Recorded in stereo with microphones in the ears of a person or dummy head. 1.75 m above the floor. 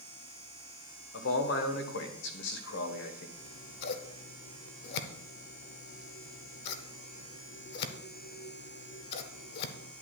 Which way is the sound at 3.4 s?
65° left (ahead or behind).